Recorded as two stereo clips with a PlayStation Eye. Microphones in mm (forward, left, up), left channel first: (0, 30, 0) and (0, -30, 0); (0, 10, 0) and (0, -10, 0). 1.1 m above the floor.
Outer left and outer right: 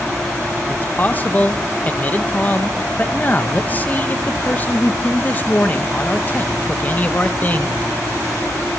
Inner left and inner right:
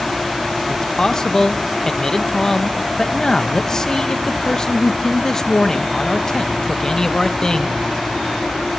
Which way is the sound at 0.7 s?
30° left (ahead or behind).